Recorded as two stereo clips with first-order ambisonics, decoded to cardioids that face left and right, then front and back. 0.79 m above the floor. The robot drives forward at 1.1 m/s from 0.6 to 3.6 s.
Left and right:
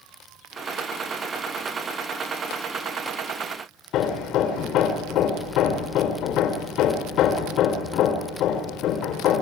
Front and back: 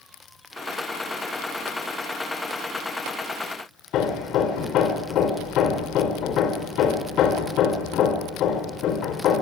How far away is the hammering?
About 3 m.